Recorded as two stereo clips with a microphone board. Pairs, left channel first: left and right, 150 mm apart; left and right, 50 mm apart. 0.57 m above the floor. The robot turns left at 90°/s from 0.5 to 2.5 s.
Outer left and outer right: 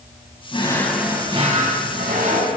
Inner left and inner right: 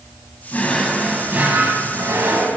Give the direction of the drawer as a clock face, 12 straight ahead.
11 o'clock.